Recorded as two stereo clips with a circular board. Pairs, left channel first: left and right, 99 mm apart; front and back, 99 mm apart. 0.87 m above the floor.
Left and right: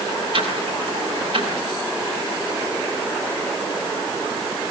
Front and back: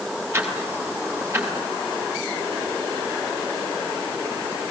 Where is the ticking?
115° right, 7 m.